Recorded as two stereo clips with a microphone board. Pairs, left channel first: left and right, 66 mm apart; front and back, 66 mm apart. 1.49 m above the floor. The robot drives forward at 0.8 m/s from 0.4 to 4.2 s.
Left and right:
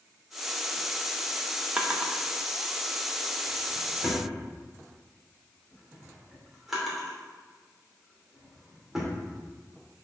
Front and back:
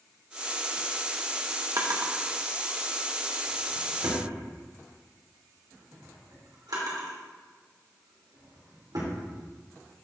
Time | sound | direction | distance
1.8 | a drawer | 160° right | 1.0 m